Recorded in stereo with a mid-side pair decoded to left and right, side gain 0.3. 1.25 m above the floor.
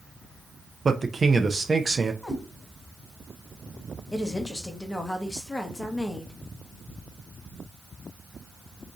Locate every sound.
0.8 s a man speaking: 40° right, 0.7 m
2.2 s a cat meowing: 20° left, 2 m
4.1 s a woman speaking: 20° left, 1.3 m